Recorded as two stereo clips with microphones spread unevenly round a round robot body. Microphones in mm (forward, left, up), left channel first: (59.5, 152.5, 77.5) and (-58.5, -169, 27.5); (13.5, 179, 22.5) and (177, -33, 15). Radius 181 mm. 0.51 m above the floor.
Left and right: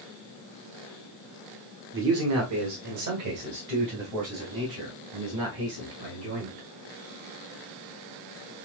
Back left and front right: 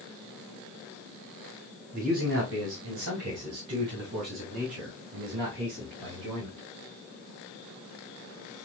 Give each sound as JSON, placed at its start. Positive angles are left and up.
{"t": 1.9, "sound": "a man speaking", "azimuth_deg": -100, "distance_m": 1.1}